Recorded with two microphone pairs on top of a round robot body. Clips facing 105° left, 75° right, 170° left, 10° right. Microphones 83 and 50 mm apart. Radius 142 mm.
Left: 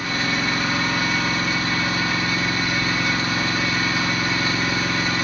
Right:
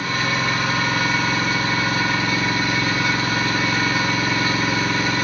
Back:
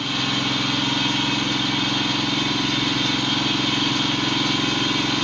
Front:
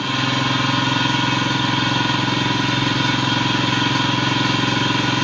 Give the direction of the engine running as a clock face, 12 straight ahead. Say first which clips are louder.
Right 2 dB, front 4 dB; 1 o'clock.